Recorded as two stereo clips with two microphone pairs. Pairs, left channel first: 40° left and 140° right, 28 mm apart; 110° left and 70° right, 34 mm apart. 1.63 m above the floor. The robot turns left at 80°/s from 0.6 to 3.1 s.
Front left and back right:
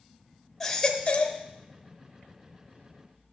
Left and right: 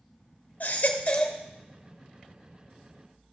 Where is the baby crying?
120° left, 1.0 m; by 1.4 s 55° left, 1.0 m.